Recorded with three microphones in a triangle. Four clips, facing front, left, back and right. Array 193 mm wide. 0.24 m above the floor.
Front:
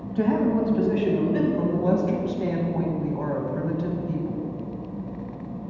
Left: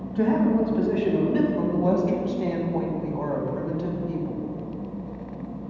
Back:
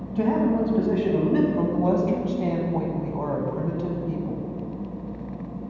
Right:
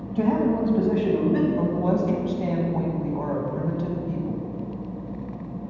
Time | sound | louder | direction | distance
0.1 | a man speaking | left 1 dB, even | 120° right | 1.1 m
1.6 | a woman speaking | left 1 dB, back 1 dB | 170° right | 1.0 m